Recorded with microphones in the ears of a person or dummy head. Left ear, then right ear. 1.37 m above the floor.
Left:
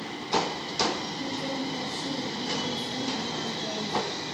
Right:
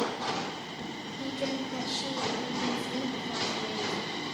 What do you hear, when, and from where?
1.2 s a woman speaking: 35° right (ahead or behind), 1.5 m